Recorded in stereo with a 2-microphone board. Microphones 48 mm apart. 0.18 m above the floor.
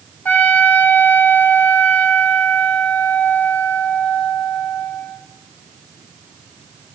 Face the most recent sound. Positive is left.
turn(degrees=40)  # may be behind; listen again after turning